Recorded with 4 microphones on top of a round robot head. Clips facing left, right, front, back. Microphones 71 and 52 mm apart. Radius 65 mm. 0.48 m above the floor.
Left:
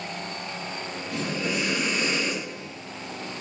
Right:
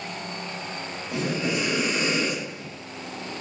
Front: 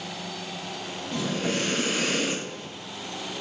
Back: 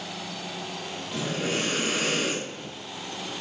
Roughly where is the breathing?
Behind right.